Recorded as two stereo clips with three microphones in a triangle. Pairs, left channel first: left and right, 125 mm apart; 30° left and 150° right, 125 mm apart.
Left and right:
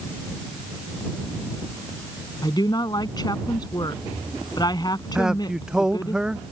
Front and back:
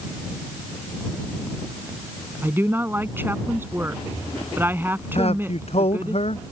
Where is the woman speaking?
140° left.